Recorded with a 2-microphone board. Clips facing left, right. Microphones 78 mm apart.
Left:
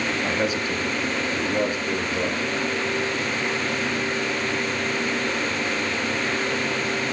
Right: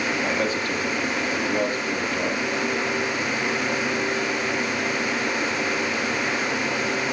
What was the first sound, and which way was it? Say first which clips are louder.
A man speaking: even; 15° left (ahead or behind).